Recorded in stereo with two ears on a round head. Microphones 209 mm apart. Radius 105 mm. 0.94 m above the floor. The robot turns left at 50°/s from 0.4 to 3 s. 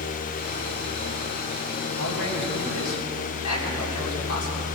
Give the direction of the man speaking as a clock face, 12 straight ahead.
7 o'clock.